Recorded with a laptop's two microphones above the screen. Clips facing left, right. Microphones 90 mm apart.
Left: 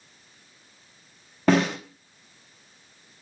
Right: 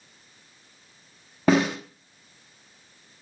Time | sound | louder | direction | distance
1.5 | a snare drum | even | 5° right (ahead or behind) | 1.0 m